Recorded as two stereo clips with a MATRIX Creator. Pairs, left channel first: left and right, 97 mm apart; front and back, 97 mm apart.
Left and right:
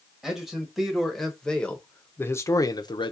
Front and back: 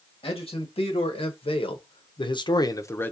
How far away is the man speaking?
About 1.6 m.